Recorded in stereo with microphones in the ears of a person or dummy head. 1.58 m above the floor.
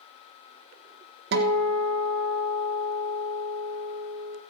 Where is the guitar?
70° right (ahead or behind), 1.2 m.